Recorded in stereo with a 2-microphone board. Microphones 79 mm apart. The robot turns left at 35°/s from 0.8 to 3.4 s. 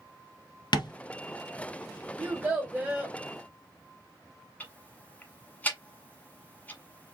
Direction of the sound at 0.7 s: 70° left (ahead or behind).